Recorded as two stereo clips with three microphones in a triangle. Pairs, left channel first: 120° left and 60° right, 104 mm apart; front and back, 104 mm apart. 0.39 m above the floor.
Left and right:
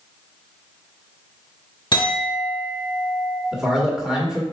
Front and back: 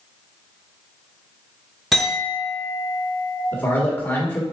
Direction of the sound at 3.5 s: 10° left.